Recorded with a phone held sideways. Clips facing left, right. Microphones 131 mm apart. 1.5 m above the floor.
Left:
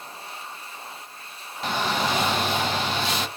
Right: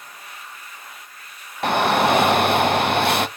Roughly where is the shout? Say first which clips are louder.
Right 8 dB; right.